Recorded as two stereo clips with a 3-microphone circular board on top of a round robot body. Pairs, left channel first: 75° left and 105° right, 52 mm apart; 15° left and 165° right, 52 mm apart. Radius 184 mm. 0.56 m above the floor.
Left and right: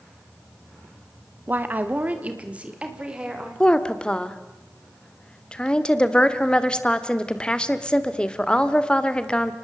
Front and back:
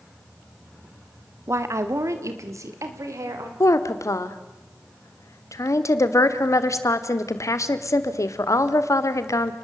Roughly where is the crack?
No crack in this recording.